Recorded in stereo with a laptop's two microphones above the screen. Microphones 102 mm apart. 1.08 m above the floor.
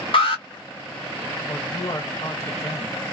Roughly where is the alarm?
Left.